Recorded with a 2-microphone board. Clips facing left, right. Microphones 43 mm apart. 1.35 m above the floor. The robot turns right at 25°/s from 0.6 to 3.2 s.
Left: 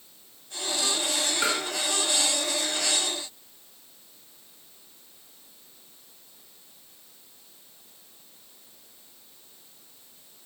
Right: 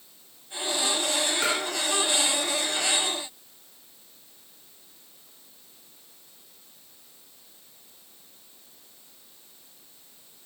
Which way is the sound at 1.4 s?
20° left (ahead or behind).